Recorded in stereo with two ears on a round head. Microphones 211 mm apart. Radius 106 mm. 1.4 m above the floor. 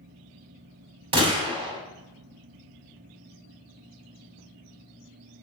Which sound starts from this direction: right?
A gunshot, at 1.1 s.